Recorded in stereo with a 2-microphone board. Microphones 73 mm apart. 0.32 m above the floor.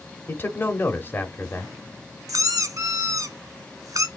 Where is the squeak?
50° right (ahead or behind), 0.9 m.